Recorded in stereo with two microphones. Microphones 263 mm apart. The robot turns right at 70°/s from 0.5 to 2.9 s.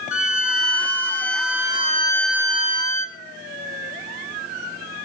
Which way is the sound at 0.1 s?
55° left.